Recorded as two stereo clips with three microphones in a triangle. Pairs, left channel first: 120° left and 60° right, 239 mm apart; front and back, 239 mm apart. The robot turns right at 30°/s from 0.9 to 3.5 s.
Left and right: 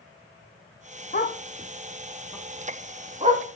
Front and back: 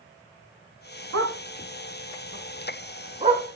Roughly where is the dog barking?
Behind.